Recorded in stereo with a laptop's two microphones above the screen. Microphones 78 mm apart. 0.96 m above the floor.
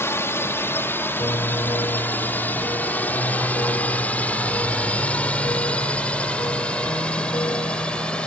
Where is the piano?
70° left (ahead or behind).